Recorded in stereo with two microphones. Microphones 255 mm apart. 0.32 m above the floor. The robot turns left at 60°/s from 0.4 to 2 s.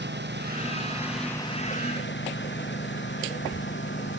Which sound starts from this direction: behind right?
A lawn mower, at 0.0 s.